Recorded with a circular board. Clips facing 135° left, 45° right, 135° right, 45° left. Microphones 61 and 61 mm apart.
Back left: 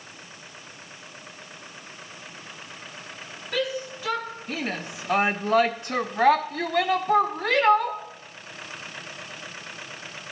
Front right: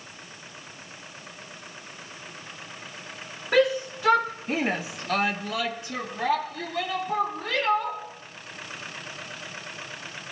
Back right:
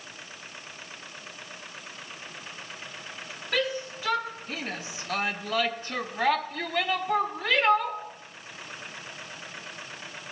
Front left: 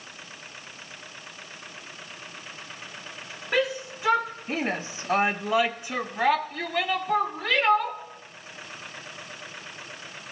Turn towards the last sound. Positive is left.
turn(degrees=140)